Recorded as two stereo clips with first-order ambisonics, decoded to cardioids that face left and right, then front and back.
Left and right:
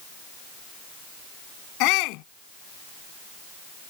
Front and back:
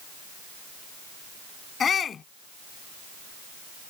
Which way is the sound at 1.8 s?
65° left.